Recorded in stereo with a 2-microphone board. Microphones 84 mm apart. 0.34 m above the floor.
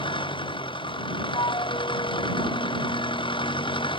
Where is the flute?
85° left.